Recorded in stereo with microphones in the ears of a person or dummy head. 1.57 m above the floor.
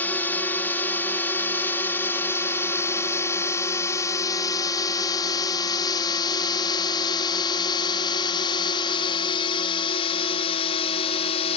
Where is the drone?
15° left (ahead or behind); by 11.6 s 40° left (ahead or behind).